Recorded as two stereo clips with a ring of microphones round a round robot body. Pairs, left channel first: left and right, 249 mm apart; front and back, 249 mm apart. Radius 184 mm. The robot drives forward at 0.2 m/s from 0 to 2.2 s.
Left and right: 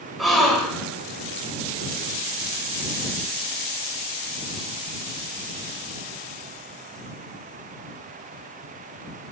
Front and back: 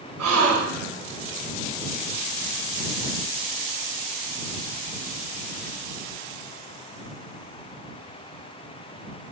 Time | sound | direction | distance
0.2 | a gasp | straight behind | 4.5 m